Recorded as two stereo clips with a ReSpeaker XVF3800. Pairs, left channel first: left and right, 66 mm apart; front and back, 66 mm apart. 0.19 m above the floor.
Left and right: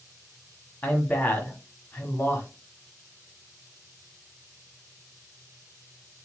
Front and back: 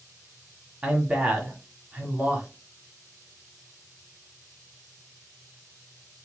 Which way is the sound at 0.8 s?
125° left.